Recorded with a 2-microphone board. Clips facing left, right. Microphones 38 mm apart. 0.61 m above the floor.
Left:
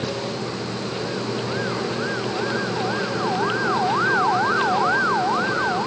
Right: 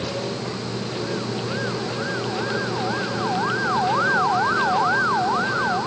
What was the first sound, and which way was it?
Only background noise.